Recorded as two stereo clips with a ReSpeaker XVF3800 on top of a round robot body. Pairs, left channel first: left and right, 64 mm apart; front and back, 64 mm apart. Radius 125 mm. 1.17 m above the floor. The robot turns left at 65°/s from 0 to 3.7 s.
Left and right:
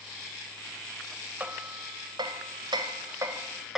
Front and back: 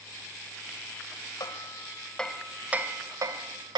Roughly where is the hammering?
Ahead right.